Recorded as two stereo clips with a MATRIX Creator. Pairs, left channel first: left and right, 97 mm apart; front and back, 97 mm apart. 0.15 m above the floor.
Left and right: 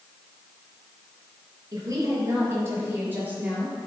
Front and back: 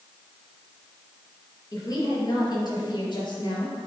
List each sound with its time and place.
1.7 s a woman speaking: 45° right, 3.5 m; by 3.9 s 10° right, 3.5 m